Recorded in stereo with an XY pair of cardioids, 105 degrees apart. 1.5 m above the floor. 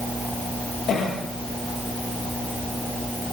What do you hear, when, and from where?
0.9 s a cough: 65° left, 9 m